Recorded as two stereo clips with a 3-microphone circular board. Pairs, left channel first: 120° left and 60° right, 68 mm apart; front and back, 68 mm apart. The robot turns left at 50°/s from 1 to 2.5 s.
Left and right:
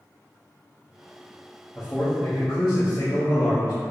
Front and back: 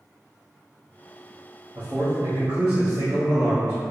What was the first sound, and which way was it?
A man speaking, 175° left.